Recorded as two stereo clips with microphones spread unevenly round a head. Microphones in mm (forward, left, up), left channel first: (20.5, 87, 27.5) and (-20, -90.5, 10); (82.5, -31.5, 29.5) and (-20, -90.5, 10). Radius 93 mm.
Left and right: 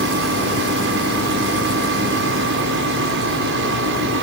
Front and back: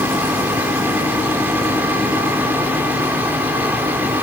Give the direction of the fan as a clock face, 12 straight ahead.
2 o'clock.